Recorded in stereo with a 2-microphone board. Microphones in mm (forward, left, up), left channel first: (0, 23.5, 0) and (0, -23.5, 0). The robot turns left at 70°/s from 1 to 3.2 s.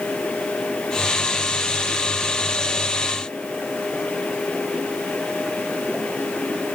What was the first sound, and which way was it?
Only background noise.